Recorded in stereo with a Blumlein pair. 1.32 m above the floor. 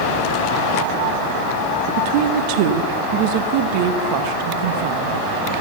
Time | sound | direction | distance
2.0 | a woman speaking | 45° right | 1.4 m